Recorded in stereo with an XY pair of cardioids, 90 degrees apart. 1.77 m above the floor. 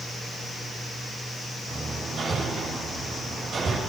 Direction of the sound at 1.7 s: 60° right.